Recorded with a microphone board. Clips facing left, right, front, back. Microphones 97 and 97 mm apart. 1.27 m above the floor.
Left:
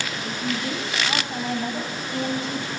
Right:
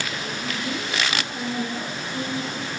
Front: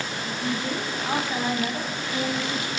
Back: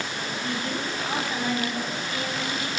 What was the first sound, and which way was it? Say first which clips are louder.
A woman speaking: left 2 dB, front 3 dB; 70° left.